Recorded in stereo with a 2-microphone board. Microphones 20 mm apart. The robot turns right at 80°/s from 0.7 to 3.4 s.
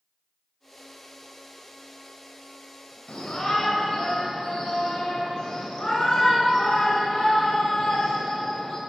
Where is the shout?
60° left (ahead or behind), 3 m; by 8.8 s 40° left (ahead or behind), 3 m.